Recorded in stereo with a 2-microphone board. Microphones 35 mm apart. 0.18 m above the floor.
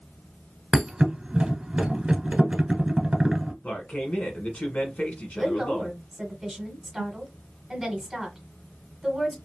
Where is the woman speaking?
5° right (ahead or behind), 1.4 m.